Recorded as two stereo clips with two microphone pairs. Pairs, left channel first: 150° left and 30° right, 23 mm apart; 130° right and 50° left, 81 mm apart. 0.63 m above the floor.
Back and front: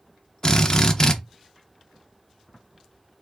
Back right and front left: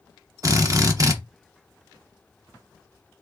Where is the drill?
90° left, 0.7 m.